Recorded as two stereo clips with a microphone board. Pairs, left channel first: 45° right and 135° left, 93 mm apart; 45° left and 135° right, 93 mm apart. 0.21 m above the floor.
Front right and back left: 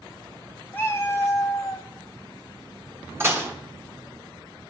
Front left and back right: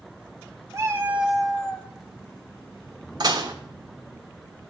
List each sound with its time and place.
0.7 s a cat meowing: 100° right, 0.9 m; by 1.9 s 20° right, 0.9 m
3.2 s dishes clattering: 165° right, 1.5 m